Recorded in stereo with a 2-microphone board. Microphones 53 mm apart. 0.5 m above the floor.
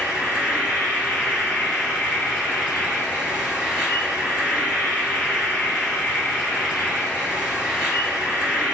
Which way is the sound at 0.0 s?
20° right (ahead or behind).